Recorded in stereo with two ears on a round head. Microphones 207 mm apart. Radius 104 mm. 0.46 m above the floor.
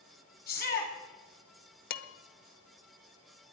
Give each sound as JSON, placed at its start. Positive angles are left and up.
{"t": 0.5, "sound": "a shout", "side_deg": 40, "distance_m": 3.5}
{"t": 1.9, "sound": "dishes clattering", "side_deg": 40, "distance_m": 0.8}